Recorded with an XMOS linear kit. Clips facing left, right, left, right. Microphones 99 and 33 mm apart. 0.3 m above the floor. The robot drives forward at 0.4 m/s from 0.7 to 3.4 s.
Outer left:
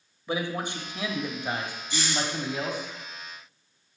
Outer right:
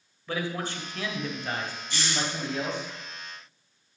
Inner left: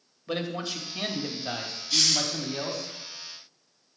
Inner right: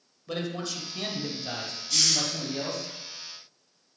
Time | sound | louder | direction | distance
0.3 | a man speaking | outer left 1 dB, inner left 1 dB | 20° left (ahead or behind) | 1.0 m
1.9 | a hiss | outer left 2 dB, inner left 1 dB | 15° left (ahead or behind) | 2.5 m